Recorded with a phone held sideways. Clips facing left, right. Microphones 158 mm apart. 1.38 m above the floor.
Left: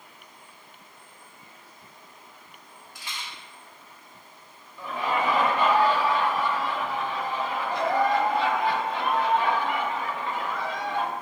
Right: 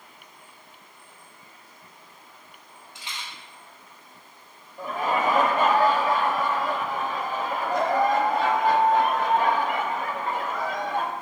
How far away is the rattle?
About 1.0 m.